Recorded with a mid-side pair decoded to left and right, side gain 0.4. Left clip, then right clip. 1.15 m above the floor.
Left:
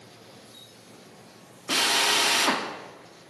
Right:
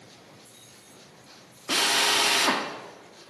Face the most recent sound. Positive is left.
turn(degrees=5)